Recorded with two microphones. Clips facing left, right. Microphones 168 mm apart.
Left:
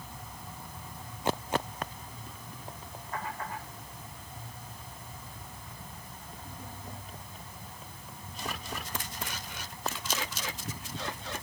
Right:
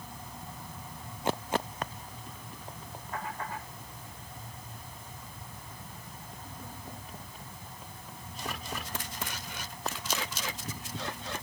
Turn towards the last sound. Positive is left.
No sound to turn to.